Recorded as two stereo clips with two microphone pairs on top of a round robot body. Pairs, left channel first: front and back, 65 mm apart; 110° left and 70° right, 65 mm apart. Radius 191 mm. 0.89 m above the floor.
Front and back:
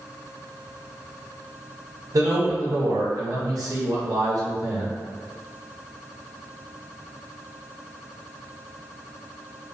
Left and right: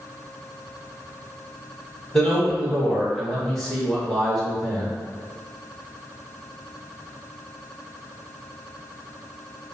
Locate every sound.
2.1 s a man speaking: 165° right, 1.8 m